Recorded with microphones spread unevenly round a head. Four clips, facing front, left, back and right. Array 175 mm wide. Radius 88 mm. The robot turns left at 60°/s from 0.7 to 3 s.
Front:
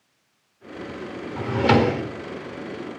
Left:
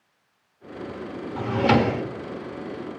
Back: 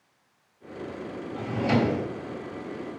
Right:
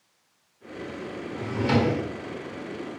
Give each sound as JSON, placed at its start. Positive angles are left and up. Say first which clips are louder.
{"t": 1.4, "sound": "a drawer", "louder": "left 4 dB, front 6 dB", "azimuth_deg": 40, "distance_m": 1.6}